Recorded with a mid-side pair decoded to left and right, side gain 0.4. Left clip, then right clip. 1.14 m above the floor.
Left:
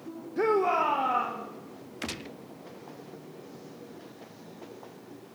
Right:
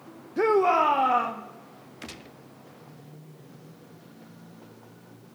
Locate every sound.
0.4 s a shout: 25° right, 1.0 m; by 1.4 s 55° right, 2 m
2.0 s a gunshot: 40° left, 0.5 m